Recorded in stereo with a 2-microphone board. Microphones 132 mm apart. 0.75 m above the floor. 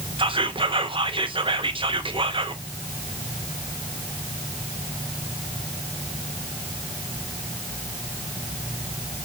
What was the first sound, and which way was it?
Whispering, 40° right (ahead or behind).